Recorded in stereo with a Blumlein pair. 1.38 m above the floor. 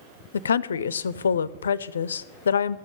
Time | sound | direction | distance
0.3 | a woman speaking | 70° left | 0.5 m